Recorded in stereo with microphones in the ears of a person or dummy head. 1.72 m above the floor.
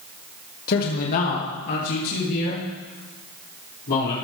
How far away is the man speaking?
About 1.8 m.